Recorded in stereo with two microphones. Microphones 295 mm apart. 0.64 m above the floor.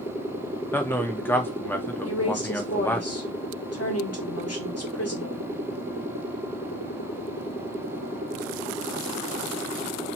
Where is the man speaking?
5° left (ahead or behind), 0.6 m.